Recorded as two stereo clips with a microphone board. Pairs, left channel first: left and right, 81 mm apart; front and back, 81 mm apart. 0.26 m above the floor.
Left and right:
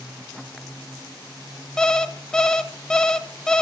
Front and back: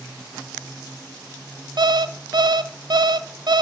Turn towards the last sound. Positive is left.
turn(degrees=170)